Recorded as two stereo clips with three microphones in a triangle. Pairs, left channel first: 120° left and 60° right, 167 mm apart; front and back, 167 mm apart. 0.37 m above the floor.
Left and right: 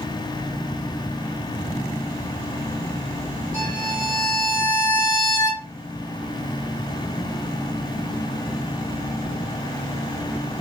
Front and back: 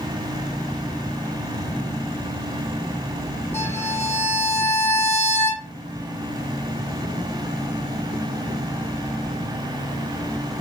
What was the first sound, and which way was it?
A violin, 70° right.